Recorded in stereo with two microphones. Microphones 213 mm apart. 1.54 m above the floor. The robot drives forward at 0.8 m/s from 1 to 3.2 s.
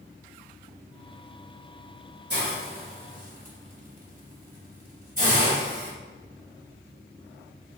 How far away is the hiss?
About 2 m.